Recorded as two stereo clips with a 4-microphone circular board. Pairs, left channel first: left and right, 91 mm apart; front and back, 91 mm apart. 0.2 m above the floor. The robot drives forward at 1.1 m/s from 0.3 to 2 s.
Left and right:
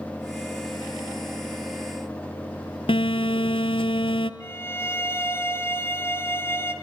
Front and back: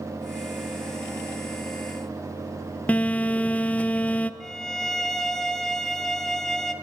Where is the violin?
75° left, 1.4 m.